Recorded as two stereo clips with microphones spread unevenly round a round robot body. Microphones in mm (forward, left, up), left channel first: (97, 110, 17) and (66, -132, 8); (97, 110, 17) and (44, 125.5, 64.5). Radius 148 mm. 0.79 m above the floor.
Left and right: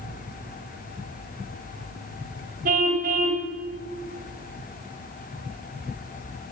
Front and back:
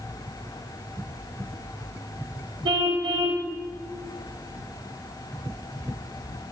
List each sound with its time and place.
2.6 s a car horn: 165° right, 2.5 m